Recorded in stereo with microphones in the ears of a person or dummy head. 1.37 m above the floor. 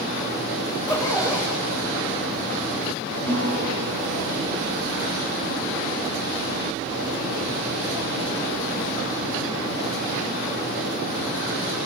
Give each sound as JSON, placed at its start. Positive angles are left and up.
{"t": 0.7, "sound": "a zipper", "side_deg": 20, "distance_m": 6.0}
{"t": 3.3, "sound": "a guitar", "side_deg": 10, "distance_m": 8.5}